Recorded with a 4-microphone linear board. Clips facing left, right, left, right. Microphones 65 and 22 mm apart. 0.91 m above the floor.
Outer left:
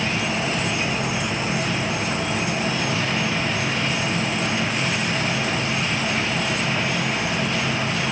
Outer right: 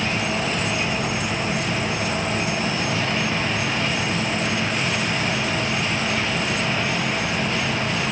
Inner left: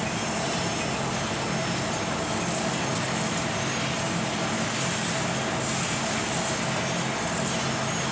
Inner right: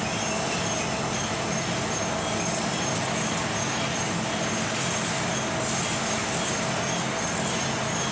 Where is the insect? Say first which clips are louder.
Even, inner right 1 dB; 45° right (ahead or behind), 4 m.